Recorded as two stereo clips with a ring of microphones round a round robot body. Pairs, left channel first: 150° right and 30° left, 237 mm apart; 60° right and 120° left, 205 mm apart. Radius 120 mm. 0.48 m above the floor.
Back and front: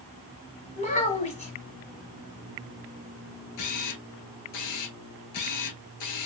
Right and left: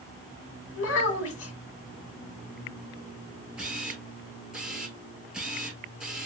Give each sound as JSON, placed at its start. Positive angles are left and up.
{"t": 0.8, "sound": "a child speaking", "azimuth_deg": -90, "distance_m": 2.5}
{"t": 3.6, "sound": "a camera shutter", "azimuth_deg": -155, "distance_m": 1.3}